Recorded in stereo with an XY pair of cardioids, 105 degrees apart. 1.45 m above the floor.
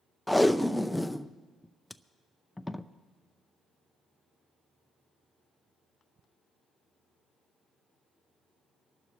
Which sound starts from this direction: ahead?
Tape being pulled, at 0.3 s.